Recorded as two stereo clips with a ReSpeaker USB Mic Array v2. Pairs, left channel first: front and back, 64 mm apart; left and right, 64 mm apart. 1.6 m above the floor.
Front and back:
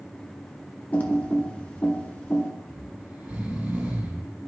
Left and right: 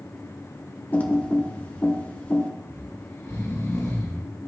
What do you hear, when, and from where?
0.9 s typing on a keyboard: 45° left, 1.1 m
2.7 s snoring: 115° left, 2.5 m